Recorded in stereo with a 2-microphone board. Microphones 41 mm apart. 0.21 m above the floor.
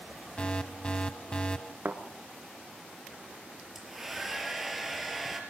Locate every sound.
0.4 s an alarm: 25° left (ahead or behind), 1.0 m
1.9 s a thud: 50° right (ahead or behind), 1.5 m
3.8 s a hair dryer: 5° right (ahead or behind), 4 m